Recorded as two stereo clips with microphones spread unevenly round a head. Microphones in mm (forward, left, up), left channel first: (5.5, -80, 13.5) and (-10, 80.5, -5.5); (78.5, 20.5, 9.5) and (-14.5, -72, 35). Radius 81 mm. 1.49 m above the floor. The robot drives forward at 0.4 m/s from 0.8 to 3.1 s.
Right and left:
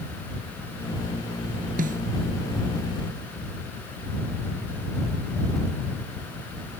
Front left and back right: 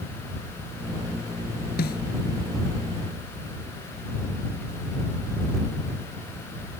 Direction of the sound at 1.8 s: 50° left.